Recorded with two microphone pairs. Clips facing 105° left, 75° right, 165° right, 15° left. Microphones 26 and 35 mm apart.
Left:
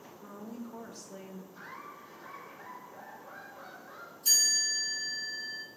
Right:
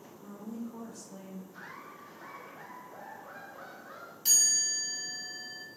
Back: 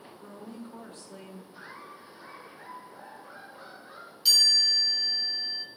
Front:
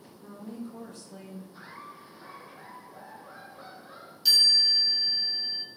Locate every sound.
0.2 s a woman speaking: 155° left, 1.1 m
1.5 s laughter: 80° right, 2.5 m
4.2 s a chime: 80° right, 2.5 m